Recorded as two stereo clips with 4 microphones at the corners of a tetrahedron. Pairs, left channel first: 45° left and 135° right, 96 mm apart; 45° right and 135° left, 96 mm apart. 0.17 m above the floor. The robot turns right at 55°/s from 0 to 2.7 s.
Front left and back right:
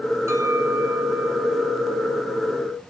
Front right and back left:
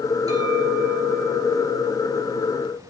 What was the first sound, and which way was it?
A clink, 170° left.